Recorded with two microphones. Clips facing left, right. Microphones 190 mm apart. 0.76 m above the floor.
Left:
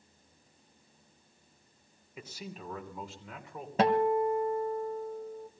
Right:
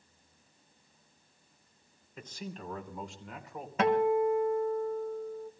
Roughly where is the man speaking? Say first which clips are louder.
Right 1 dB; centre.